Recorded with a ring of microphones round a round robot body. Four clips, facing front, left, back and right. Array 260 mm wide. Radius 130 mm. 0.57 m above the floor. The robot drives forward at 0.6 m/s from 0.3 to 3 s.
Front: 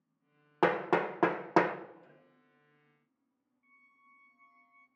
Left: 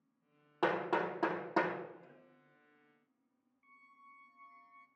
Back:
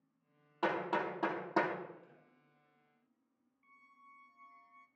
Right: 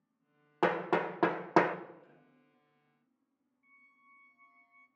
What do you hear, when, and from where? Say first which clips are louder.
0.6 s hammering: right 3 dB, front 6 dB; 20° right, 1.0 m; by 1.8 s 60° right, 0.5 m
2.0 s a snare drum: left 2 dB, front 2 dB; 50° left, 6.5 m; by 2.6 s 55° left, 6 m
3.6 s a squeak: left 5 dB, back 4 dB; 130° left, 0.5 m